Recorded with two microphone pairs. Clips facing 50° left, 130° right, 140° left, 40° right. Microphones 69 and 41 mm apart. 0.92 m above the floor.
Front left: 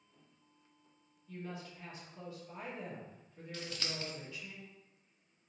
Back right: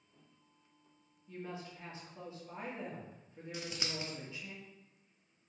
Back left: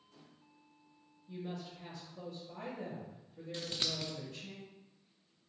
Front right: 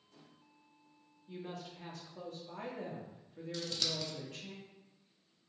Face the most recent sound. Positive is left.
turn(degrees=170)